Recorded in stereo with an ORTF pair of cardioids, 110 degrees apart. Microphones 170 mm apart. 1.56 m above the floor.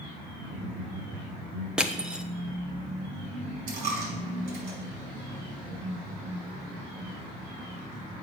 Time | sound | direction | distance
0.5 | laughter | 65° right | 5 m
1.8 | crushing | 5° right | 1.0 m
3.7 | a dropped coin | 70° right | 5.5 m